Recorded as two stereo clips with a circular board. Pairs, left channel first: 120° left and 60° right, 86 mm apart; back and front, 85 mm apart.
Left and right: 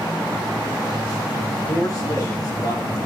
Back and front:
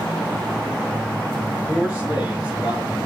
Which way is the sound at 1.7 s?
75° left.